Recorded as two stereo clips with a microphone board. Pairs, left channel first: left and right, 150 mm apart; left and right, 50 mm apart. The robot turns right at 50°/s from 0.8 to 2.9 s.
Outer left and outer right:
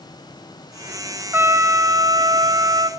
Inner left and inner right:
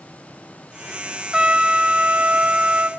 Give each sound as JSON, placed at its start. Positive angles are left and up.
{"t": 1.3, "sound": "a trumpet", "side_deg": -15, "distance_m": 1.1}